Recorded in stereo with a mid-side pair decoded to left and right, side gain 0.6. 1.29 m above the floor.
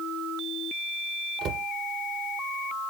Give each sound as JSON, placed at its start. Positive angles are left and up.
{"t": 1.4, "sound": "a cupboard door", "azimuth_deg": -65, "distance_m": 0.7}